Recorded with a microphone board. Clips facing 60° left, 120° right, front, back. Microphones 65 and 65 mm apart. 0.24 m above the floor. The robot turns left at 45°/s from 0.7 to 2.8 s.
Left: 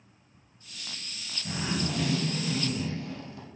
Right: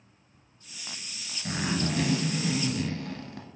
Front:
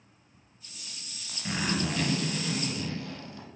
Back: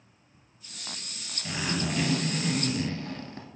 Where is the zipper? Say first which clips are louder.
Right 2 dB, front 1 dB; 75° right, 0.7 m; by 3.5 s 135° right, 0.7 m.